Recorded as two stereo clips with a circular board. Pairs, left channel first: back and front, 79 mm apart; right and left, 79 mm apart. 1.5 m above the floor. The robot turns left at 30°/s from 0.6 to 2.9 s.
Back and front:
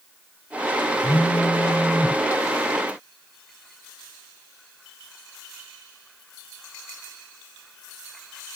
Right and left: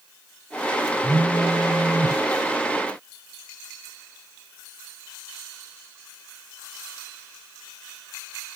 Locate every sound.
1.0 s a phone buzzing: 155° left, 1.2 m; by 2.2 s 120° left, 1.2 m